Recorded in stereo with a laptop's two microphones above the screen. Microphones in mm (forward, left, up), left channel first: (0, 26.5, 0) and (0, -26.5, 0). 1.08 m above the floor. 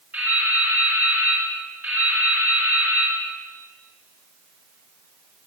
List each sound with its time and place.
0.1 s dripping: 30° right (ahead or behind), 4 m